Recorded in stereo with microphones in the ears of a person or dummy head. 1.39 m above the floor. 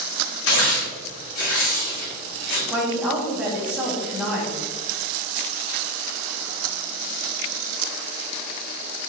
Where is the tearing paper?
60° left (ahead or behind), 1.7 m.